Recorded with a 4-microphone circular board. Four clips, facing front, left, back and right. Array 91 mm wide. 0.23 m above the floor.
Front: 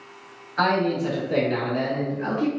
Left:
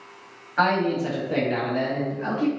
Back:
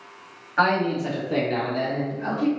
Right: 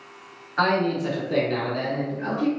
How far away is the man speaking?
About 1.0 m.